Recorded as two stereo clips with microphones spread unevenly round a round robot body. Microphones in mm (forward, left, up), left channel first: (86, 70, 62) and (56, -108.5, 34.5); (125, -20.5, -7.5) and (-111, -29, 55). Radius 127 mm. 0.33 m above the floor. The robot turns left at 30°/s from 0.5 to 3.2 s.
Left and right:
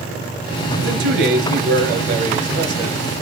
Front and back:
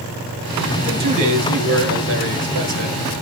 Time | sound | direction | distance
0.8 | a man speaking | 105° right | 5.5 m